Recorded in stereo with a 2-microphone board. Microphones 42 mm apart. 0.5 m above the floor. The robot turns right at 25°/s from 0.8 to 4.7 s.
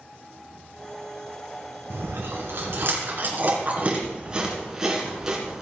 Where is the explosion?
I don't hear an explosion.